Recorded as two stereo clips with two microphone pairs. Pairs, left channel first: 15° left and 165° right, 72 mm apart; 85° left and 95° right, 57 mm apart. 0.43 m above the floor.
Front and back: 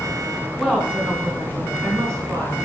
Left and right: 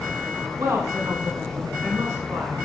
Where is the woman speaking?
85° right, 3 m; by 2.5 s 130° right, 4 m.